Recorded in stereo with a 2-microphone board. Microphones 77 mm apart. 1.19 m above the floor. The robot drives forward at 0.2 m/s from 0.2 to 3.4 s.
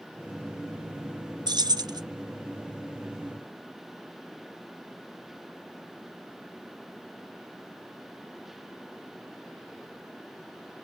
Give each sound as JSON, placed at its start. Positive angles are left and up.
{"t": 1.5, "sound": "keys jangling", "side_deg": -65, "distance_m": 0.7}